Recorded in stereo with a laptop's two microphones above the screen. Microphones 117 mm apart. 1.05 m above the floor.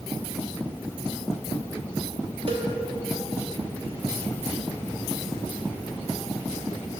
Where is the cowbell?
55° right (ahead or behind), 0.8 m.